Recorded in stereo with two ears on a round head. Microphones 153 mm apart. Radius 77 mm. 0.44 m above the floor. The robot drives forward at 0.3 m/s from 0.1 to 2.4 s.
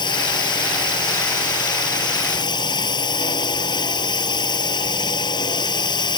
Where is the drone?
30° left (ahead or behind); by 6.2 s 25° left (ahead or behind).